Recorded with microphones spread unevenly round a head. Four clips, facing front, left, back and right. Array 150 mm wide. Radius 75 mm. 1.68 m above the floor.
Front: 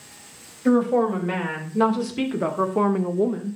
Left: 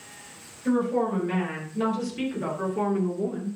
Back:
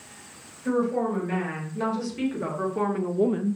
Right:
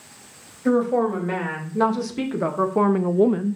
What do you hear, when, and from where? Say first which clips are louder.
0.7 s a woman speaking: right 4 dB, front 6 dB; 40° right, 4 m; by 3.6 s 130° right, 0.5 m